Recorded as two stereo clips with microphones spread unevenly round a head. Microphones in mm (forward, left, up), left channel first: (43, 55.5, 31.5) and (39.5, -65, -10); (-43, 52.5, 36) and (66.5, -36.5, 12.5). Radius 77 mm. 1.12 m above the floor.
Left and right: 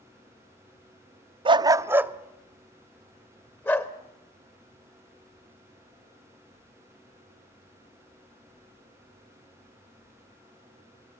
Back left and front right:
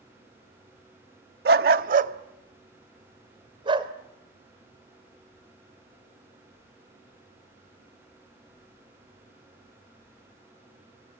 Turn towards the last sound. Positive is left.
turn(degrees=20)